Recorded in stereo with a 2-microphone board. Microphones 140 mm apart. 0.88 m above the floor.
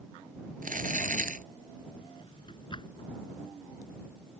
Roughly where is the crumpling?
Right.